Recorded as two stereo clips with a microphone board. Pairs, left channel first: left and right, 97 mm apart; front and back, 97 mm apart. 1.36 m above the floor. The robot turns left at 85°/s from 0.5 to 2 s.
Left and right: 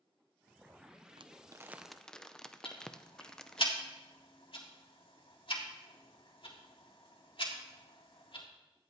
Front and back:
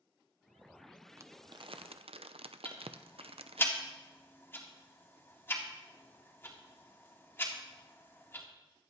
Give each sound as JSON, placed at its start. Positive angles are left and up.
{"t": 1.2, "sound": "crumpling", "azimuth_deg": -115, "distance_m": 0.5}
{"t": 2.6, "sound": "ticking", "azimuth_deg": 65, "distance_m": 2.0}